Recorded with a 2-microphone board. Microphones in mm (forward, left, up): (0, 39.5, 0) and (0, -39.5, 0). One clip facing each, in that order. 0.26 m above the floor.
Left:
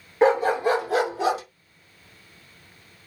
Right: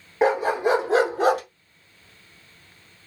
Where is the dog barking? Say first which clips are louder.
Left 1 dB; 5° right (ahead or behind), 1.9 m; by 1.4 s 60° right (ahead or behind), 1.2 m.